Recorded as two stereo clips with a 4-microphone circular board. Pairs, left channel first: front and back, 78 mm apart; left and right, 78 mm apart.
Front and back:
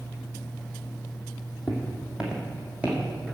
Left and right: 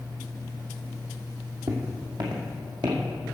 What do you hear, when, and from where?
1.7 s footsteps: 90° right, 1.8 m; by 3.0 s 105° right, 2.5 m